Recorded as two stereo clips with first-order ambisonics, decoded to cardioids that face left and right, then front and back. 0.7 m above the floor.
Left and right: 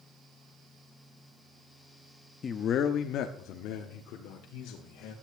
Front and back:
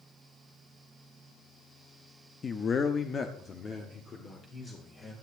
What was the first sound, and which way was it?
A man speaking, 45° left.